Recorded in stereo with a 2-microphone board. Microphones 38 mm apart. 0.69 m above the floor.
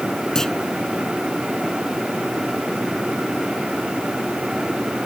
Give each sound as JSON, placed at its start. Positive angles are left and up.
{"t": 0.3, "sound": "a clunk", "side_deg": 10}